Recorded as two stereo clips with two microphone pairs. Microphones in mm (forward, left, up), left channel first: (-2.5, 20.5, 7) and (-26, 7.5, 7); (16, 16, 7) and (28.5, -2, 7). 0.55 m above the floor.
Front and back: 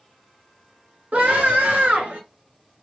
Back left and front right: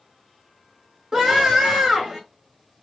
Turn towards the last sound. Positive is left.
turn(degrees=-120)